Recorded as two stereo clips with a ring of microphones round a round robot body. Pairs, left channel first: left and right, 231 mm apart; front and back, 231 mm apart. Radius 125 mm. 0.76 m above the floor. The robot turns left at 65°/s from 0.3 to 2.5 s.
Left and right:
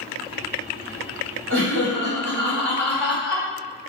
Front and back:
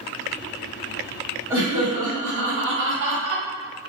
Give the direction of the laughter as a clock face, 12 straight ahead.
3 o'clock.